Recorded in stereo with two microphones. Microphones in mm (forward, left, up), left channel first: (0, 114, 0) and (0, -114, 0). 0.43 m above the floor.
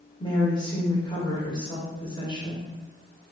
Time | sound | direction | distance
0.2 | a woman speaking | 20° left (ahead or behind) | 1.1 m